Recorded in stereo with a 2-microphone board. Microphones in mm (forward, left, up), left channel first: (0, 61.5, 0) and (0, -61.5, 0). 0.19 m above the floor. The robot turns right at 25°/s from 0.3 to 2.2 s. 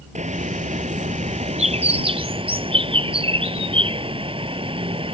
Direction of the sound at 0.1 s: 100° right.